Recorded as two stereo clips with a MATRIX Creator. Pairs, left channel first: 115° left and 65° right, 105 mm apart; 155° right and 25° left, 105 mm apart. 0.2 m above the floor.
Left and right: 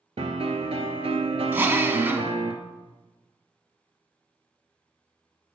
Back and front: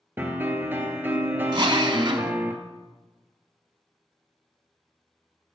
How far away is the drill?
About 0.6 m.